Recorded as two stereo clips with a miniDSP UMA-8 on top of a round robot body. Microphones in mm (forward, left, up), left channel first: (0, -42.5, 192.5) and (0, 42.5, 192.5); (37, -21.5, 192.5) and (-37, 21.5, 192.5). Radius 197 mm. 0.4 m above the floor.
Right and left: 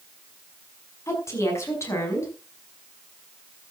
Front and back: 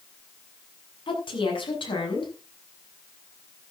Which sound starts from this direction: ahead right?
A woman speaking, at 1.1 s.